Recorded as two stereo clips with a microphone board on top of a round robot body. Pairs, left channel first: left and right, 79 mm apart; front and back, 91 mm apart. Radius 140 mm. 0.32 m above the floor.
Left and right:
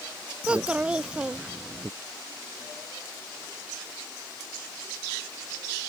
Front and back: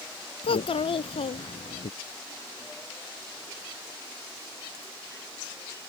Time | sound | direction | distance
0.4 | a child speaking | 15° right | ?